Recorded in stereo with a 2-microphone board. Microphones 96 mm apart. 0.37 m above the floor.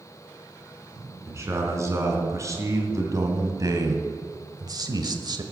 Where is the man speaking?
30° right (ahead or behind), 3.5 m; by 5.4 s 50° right (ahead or behind), 1.3 m.